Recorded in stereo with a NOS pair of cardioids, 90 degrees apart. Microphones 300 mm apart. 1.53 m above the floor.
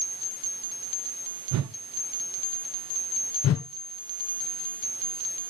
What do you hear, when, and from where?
1.5 s a whoosh: 65° right, 0.7 m
3.4 s a whoosh: 55° left, 0.8 m